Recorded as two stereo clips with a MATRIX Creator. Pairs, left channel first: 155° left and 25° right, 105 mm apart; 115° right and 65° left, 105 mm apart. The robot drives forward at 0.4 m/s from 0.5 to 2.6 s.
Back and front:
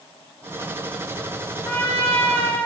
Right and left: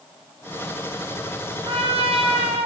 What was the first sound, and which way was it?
A trumpet, 85° left.